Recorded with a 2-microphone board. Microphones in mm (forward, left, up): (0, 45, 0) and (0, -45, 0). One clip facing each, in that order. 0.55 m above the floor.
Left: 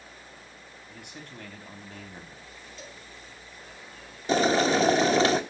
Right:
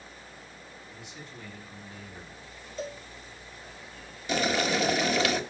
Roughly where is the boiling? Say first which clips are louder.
Left 5 dB; left.